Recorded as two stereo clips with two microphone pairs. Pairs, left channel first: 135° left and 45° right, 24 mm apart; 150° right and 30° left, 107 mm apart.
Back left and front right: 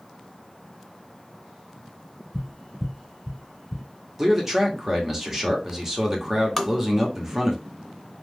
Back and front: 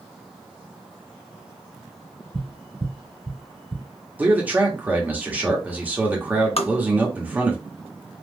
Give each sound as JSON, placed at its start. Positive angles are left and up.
{"t": 2.3, "sound": "tapping", "azimuth_deg": 45, "distance_m": 1.3}
{"t": 4.2, "sound": "a man speaking", "azimuth_deg": -15, "distance_m": 0.9}
{"t": 6.6, "sound": "tapping", "azimuth_deg": -145, "distance_m": 0.6}